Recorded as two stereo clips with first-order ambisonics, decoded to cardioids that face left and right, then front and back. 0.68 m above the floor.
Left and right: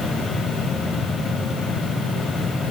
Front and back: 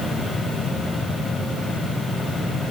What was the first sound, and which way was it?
Only background noise.